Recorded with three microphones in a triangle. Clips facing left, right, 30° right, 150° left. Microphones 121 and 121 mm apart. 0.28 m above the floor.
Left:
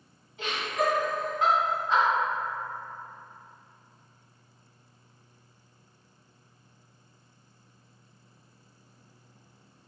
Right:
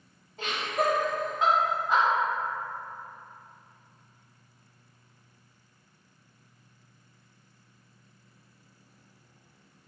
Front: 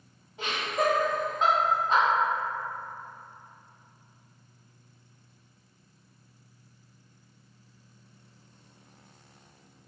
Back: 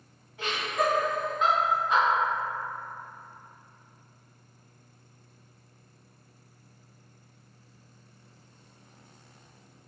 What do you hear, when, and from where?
0.4 s laughter: 85° right, 1.5 m; by 2.0 s 10° right, 1.4 m